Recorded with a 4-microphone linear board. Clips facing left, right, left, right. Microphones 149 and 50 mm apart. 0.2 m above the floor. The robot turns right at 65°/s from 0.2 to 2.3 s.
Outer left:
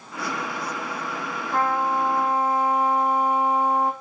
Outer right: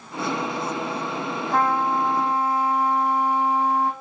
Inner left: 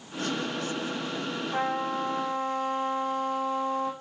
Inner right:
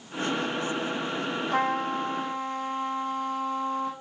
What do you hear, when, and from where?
1.5 s a trumpet: 80° right, 3 m; by 3.9 s 30° right, 3 m